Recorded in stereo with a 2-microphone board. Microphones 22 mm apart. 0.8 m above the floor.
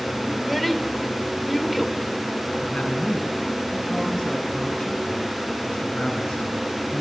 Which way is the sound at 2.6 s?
45° left (ahead or behind).